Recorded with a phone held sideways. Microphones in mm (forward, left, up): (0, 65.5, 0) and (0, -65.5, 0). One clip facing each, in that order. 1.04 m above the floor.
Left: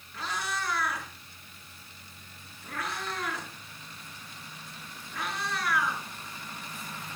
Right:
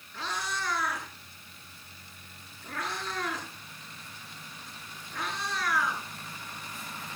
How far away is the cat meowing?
About 8 m.